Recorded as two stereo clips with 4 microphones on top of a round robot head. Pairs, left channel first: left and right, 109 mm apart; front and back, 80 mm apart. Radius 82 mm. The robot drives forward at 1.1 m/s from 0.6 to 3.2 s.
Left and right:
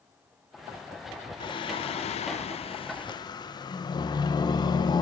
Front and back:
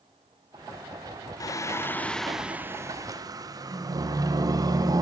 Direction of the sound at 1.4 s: 40° left.